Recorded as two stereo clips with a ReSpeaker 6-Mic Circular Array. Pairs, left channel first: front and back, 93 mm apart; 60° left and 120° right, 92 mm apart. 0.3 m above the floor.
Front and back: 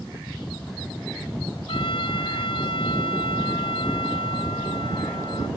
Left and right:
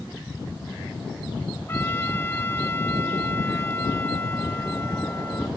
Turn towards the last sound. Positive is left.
turn(degrees=-5)